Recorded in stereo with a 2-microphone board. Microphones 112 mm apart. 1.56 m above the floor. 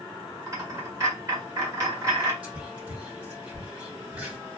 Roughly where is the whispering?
Centre.